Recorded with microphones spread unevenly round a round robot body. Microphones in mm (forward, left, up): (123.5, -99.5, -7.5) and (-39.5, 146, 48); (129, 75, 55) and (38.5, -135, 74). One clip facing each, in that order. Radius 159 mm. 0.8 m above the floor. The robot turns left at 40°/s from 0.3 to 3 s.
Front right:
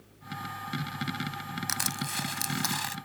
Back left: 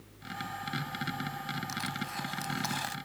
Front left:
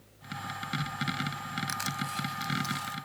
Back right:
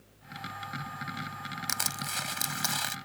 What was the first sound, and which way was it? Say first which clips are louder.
Crushing: front right 1 dB, front left 3 dB; 80° right.